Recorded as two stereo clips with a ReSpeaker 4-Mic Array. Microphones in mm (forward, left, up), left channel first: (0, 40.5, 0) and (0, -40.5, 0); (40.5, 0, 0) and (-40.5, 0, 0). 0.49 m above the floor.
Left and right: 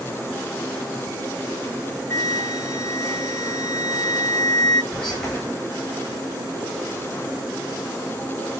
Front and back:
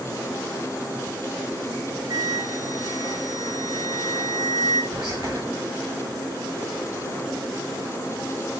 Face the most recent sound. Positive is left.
turn(degrees=175)